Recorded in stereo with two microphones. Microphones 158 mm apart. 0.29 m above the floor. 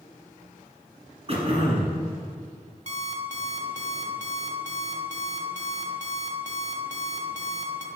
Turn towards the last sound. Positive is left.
turn(degrees=-50)  # may be behind; listen again after turning